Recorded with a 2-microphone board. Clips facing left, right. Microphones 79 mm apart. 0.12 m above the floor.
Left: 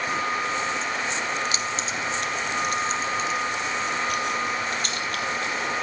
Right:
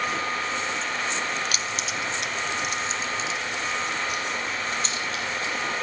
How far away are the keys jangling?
About 0.9 m.